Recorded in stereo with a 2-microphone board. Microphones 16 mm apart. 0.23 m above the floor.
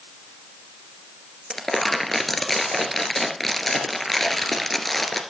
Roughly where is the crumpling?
Left.